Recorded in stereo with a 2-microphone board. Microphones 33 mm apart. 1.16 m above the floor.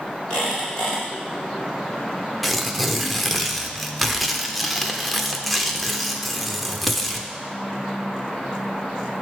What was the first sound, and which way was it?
A squeak, 20° left (ahead or behind).